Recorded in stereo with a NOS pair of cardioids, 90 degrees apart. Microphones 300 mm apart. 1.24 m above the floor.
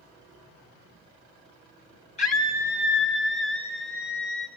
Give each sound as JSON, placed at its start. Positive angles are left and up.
{"t": 2.2, "sound": "a scream", "azimuth_deg": 25, "distance_m": 2.0}